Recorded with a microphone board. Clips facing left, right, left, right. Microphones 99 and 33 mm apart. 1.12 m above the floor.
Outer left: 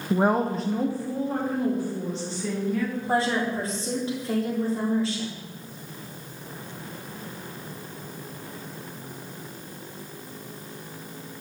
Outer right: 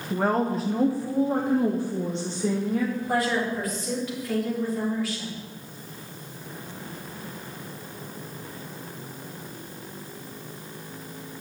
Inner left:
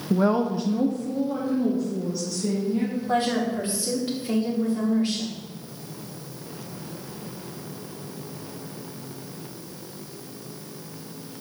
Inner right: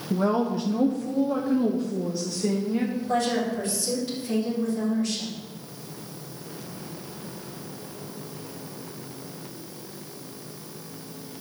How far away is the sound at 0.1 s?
About 0.7 m.